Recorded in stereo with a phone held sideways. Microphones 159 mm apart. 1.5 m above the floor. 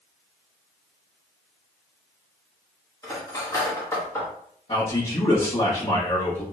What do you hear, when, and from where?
3.0 s cutlery clinking: 20° left (ahead or behind), 1.1 m
4.7 s a man speaking: 40° left (ahead or behind), 1.7 m